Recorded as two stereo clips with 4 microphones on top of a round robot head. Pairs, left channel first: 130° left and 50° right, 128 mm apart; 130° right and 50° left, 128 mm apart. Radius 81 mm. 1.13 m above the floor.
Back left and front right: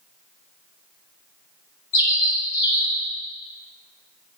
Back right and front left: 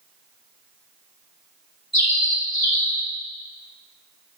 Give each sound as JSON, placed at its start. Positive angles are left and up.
{"t": 1.9, "sound": "a bird", "azimuth_deg": 180, "distance_m": 4.5}